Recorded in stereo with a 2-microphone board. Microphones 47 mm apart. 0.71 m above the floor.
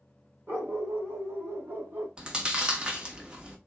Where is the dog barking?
50° right (ahead or behind), 1.3 m; by 2.1 s 65° right (ahead or behind), 2.5 m.